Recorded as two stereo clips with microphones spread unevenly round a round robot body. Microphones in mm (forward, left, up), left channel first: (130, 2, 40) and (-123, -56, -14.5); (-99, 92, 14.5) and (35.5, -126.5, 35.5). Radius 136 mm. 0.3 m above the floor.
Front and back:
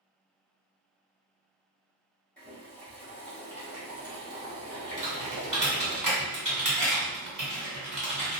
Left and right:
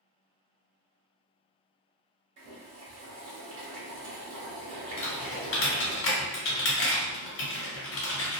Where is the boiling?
80° right, 1.3 m.